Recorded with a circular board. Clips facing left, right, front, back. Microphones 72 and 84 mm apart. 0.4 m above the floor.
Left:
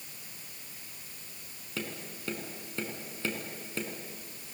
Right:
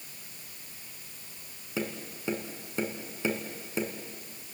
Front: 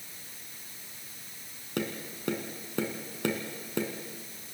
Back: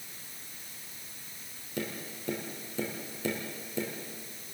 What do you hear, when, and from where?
1.8 s tapping: 20° right, 3 m